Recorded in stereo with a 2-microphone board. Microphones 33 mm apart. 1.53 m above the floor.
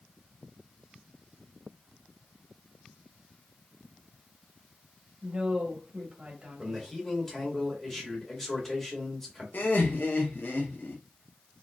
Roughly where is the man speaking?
Centre.